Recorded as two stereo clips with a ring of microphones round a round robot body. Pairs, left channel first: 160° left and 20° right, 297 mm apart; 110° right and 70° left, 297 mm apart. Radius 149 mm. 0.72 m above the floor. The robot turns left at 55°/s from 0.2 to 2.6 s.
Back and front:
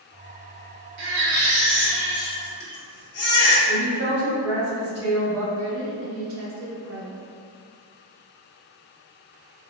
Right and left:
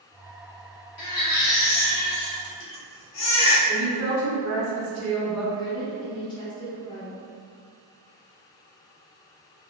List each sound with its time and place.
1.0 s a baby crying: 60° right, 0.7 m; by 3.6 s 150° right, 0.7 m
3.7 s a woman speaking: 120° left, 1.9 m
5.5 s a woman speaking: 40° right, 0.6 m